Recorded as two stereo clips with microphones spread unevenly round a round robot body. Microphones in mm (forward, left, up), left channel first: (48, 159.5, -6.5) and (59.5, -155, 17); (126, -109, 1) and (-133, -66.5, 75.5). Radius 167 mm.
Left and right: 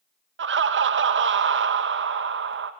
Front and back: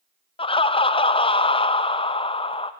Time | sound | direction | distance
0.4 | laughter | 45° right | 0.7 m